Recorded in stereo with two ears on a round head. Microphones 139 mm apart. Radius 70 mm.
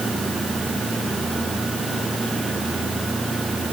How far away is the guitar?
No guitar in this recording.